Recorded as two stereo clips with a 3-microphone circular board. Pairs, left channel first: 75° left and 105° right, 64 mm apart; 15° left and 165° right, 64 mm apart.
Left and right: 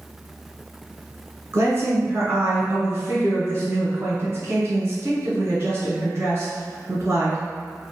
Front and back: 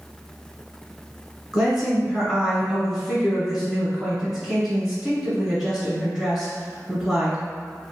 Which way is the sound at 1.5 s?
90° right.